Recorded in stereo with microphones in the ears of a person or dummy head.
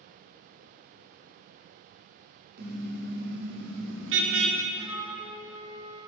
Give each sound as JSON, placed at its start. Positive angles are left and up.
{"t": 2.6, "sound": "a car horn", "side_deg": -60, "distance_m": 2.5}
{"t": 4.8, "sound": "a flute", "side_deg": -20, "distance_m": 5.5}